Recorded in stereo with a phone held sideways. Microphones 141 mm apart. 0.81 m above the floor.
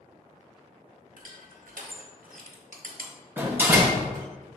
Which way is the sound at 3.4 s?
15° right (ahead or behind).